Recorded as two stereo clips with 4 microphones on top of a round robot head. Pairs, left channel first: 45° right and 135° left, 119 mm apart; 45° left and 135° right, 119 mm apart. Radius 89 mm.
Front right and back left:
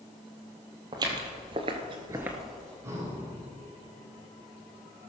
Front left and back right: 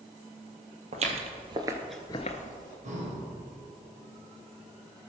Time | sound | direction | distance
0.9 | footsteps | 165° right | 1.7 m
2.8 | breathing | 155° right | 3 m